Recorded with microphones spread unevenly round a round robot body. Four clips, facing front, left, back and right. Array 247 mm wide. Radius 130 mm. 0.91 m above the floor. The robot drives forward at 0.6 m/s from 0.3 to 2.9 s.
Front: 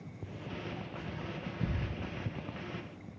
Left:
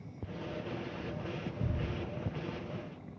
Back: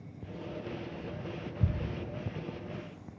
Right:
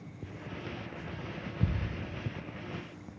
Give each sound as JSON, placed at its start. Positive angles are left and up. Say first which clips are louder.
{"t": 1.6, "sound": "ticking", "louder": "right 8 dB, back 2 dB", "azimuth_deg": -140, "distance_m": 1.2}